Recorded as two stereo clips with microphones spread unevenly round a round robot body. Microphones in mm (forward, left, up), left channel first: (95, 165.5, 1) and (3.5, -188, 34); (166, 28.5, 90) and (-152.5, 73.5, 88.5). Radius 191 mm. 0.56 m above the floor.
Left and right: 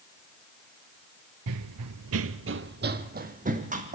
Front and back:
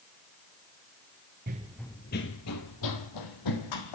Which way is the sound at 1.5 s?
130° right.